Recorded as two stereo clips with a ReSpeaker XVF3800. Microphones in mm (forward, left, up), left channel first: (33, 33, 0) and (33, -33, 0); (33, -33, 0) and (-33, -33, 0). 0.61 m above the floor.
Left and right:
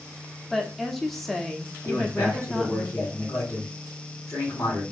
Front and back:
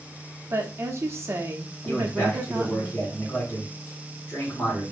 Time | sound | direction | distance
0.5 | a woman speaking | 175° left | 0.7 m
1.9 | a man speaking | 55° left | 1.6 m